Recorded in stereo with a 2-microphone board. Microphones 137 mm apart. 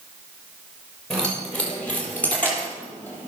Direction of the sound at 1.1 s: 5° left (ahead or behind).